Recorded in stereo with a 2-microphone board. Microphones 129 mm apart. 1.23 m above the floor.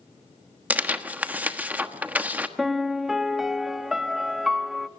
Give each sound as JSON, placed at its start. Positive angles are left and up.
{"t": 0.7, "sound": "tearing paper", "side_deg": -10, "distance_m": 1.2}
{"t": 2.6, "sound": "a piano", "side_deg": 0, "distance_m": 1.1}